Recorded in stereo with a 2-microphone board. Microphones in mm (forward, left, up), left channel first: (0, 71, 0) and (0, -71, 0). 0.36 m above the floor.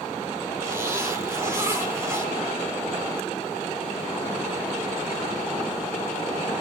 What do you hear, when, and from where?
0.6 s a zipper: 15° right (ahead or behind), 5 m